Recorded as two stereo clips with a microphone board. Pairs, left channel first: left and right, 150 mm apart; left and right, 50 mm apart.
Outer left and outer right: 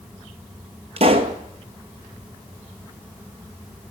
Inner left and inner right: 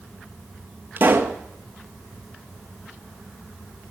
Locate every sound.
1.0 s a pop: 40° right (ahead or behind), 1.0 m